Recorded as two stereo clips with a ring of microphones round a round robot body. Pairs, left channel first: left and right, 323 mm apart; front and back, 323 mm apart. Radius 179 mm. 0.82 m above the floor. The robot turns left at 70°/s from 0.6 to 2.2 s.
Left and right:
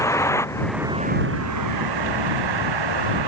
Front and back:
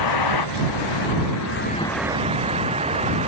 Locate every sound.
0.0 s a vehicle: 10° left; by 3.3 s 105° right